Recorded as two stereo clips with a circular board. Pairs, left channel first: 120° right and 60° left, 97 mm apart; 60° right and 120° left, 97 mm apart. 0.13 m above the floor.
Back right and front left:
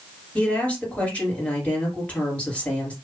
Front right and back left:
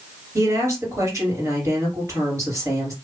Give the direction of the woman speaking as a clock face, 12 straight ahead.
6 o'clock.